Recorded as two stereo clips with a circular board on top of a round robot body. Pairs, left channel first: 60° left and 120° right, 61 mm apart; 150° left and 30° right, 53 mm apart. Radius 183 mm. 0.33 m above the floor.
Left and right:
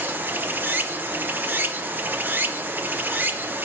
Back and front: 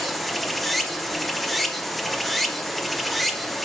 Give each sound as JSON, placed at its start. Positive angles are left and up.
{"t": 0.0, "sound": "running water", "azimuth_deg": -125, "distance_m": 0.9}